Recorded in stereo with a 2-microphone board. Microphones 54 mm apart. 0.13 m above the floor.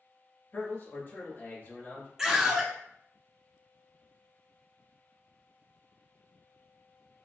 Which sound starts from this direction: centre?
A scream, at 2.2 s.